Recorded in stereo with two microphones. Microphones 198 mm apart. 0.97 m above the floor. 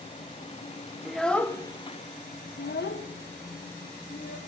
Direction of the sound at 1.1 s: Centre (ahead or behind).